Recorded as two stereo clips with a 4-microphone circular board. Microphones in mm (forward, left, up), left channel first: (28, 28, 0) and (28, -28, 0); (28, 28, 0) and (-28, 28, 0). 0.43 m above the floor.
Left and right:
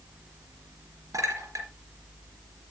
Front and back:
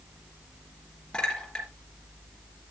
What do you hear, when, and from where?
1.1 s a clink: 75° right, 4 m